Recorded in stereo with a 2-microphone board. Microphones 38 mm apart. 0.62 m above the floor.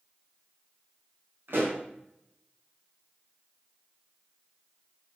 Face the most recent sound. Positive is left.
turn(degrees=-70)  # may be behind; listen again after turning